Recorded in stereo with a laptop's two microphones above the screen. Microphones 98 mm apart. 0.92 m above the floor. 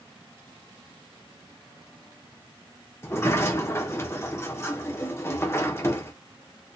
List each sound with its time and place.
3.0 s a sliding door: 25° left (ahead or behind), 0.8 m